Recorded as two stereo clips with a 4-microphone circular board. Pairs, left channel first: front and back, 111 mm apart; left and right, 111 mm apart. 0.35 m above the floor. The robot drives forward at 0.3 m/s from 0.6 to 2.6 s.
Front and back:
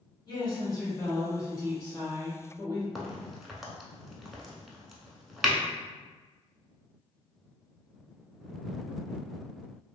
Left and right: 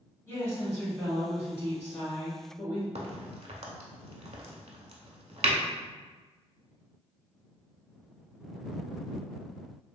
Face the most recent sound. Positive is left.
turn(degrees=-90)